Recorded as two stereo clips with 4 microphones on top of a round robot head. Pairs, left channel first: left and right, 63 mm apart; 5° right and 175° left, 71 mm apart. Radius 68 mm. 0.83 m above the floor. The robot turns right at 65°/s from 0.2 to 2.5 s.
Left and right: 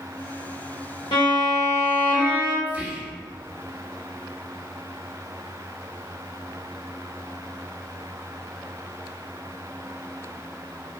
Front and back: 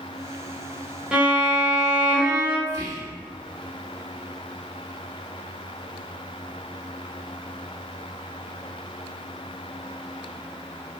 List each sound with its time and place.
1.1 s a violin: 95° left, 0.9 m; by 2.6 s 175° right, 0.9 m
2.7 s whispering: 155° right, 1.0 m